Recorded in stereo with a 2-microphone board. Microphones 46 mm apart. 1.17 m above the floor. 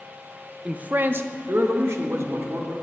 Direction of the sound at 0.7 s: 25° right (ahead or behind).